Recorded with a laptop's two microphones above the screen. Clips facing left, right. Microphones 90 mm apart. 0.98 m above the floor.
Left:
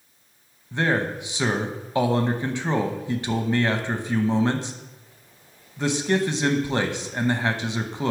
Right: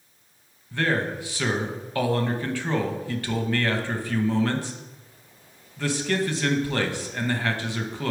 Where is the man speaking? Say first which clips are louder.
Left 2 dB; 20° left (ahead or behind), 0.8 m.